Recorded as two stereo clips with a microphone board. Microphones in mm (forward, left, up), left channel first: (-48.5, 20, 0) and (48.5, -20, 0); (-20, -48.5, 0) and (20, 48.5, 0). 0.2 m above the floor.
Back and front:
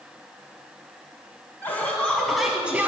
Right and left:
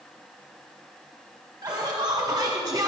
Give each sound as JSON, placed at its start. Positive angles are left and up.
{"t": 1.6, "sound": "laughter", "azimuth_deg": 95, "distance_m": 1.4}